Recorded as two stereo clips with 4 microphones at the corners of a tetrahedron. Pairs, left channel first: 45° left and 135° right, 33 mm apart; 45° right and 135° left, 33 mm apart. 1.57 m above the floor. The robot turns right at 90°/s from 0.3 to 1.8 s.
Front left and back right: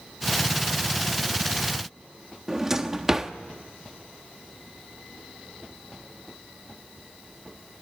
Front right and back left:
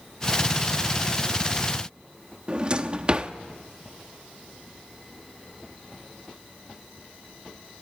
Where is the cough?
I don't hear a cough.